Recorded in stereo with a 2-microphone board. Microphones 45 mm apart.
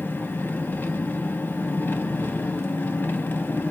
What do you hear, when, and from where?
0.0 s an engine running: 45° left (ahead or behind), 0.8 m